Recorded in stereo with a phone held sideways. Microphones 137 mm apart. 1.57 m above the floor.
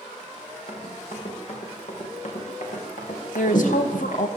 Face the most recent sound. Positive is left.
turn(degrees=70)  # may be behind; listen again after turning